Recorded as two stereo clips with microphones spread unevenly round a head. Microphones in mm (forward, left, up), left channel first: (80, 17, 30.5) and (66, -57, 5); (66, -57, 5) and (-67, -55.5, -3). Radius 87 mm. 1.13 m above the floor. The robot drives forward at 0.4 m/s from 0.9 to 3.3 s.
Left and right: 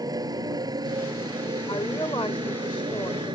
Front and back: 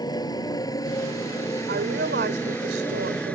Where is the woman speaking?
140° left; by 3.4 s 145° left.